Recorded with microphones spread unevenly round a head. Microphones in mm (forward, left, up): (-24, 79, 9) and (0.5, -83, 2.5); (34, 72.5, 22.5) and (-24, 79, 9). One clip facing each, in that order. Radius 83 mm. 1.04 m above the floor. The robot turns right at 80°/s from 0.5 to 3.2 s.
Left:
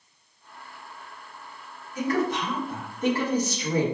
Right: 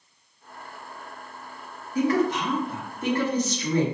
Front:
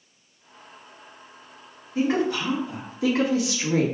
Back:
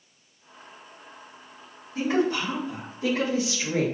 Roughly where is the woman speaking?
Right.